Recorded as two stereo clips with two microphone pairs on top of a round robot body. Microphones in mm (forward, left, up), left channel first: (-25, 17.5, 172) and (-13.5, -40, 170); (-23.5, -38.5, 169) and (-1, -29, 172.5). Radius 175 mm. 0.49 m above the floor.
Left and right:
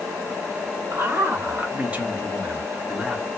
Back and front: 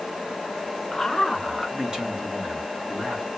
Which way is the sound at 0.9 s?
90° right.